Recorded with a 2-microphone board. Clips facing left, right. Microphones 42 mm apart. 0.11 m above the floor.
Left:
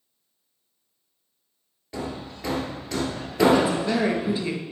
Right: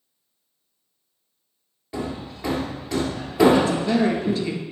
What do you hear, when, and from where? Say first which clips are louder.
1.9 s hammering: right 3 dB; 5° right (ahead or behind), 1.7 m
3.6 s a woman speaking: right 2 dB; 15° left (ahead or behind), 1.5 m